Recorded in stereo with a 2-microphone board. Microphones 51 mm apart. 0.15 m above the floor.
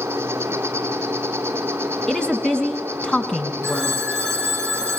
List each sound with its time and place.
0.0 s an insect: 50° right (ahead or behind), 3 m
2.1 s a woman speaking: 15° left (ahead or behind), 1.3 m
3.6 s a phone ringing: 15° left (ahead or behind), 5 m